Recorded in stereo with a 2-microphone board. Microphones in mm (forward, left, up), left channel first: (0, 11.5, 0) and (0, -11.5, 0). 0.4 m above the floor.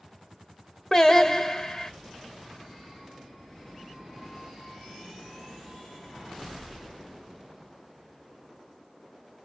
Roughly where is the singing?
Left.